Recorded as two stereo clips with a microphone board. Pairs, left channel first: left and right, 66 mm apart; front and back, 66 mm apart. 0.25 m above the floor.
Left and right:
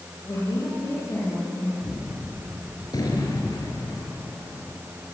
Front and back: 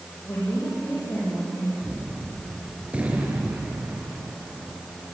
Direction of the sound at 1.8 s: 110° left.